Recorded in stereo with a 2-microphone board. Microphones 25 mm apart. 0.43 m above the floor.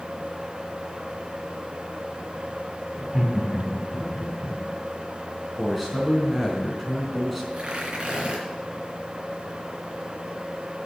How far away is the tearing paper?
About 3 m.